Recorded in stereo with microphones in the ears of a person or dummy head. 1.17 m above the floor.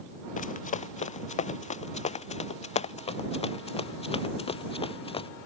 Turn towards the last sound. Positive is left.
turn(degrees=25)  # may be behind; listen again after turning